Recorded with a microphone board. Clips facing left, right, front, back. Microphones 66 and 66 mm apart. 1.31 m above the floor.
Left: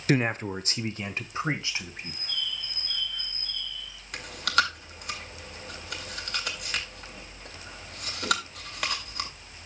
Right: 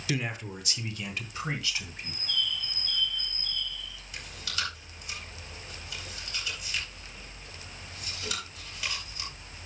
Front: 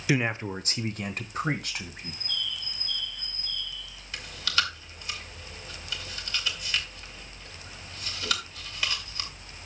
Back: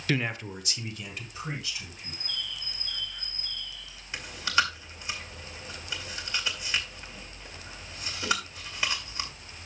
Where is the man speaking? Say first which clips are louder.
Left 8 dB, front 3 dB; 75° left, 0.6 m; by 2.2 s 25° left, 2 m.